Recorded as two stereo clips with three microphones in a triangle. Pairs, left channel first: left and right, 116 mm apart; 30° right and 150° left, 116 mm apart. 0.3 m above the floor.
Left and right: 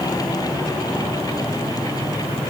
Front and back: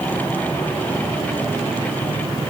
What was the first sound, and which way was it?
Only background noise.